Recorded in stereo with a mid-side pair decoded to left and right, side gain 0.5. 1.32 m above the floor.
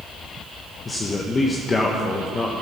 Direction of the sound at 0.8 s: 35° left.